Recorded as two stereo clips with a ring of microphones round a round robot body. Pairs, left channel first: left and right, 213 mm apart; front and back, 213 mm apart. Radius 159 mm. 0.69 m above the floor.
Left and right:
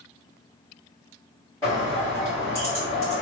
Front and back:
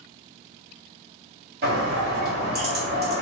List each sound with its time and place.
1.6 s a bird: 165° left, 1.5 m